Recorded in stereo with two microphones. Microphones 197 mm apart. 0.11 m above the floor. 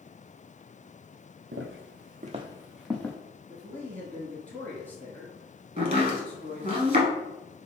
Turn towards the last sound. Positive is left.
turn(degrees=-30)  # may be behind; listen again after turning